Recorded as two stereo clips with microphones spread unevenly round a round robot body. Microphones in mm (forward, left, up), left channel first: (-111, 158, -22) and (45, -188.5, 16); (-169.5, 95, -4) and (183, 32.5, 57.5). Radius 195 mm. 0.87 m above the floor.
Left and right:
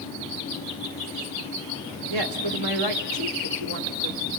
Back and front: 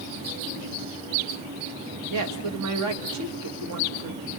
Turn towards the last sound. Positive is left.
turn(degrees=-55)